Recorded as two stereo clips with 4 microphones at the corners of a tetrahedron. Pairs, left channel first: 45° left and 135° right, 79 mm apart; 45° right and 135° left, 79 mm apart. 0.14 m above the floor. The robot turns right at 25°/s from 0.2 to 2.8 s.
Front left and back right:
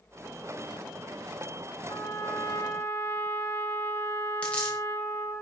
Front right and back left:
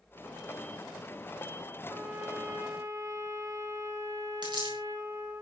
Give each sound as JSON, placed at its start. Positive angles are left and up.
{"t": 1.9, "sound": "a trumpet", "azimuth_deg": 70, "distance_m": 2.0}
{"t": 4.4, "sound": "a dropped coin", "azimuth_deg": 120, "distance_m": 5.5}